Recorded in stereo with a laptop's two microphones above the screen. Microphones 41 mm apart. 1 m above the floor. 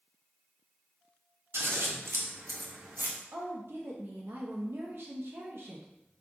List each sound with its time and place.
1.5 s scissors: 80° right, 0.7 m
3.3 s a woman speaking: 65° right (ahead or behind), 0.6 m